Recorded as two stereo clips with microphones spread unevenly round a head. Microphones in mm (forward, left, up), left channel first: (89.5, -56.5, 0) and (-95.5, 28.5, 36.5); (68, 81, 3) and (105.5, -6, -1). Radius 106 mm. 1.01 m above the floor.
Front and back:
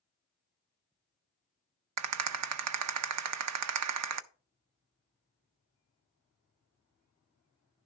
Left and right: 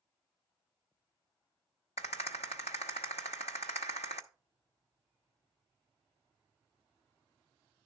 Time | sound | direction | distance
2.0 | a rattle | 165° left | 0.6 m